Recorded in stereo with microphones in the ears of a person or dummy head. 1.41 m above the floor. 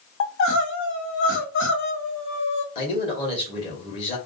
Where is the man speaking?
35° left (ahead or behind), 2 m.